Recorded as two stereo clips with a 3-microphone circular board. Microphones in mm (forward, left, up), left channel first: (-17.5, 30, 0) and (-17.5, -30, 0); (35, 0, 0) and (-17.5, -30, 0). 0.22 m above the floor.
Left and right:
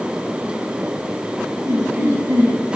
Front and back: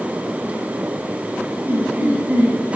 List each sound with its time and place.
1.6 s laughter: 100° right, 2.5 m